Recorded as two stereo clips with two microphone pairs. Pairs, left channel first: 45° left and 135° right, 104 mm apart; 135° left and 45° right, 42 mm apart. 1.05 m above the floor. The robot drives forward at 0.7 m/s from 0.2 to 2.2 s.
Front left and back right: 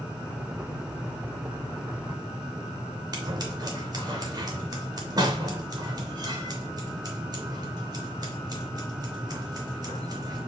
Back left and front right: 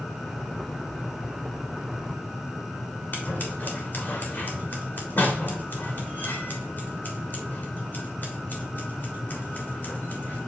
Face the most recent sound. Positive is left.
turn(degrees=175)